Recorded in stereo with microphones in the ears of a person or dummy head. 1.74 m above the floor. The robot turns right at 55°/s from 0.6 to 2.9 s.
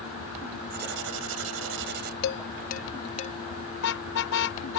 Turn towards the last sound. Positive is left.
turn(degrees=75)  # may be behind; listen again after turning